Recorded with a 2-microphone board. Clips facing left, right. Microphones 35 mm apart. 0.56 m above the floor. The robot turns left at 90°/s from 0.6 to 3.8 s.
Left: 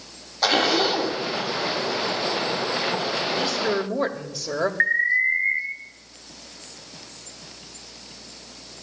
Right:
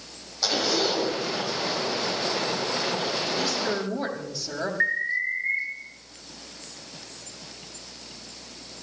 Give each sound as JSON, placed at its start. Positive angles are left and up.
{"t": 0.4, "sound": "a zipper", "azimuth_deg": 50, "distance_m": 1.8}
{"t": 3.4, "sound": "a woman speaking", "azimuth_deg": 150, "distance_m": 2.0}
{"t": 4.8, "sound": "an alarm", "side_deg": 35, "distance_m": 2.5}